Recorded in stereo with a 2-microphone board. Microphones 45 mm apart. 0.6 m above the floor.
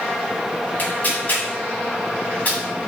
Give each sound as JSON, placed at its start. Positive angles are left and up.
{"t": 0.8, "sound": "tearing paper", "side_deg": 40, "distance_m": 1.9}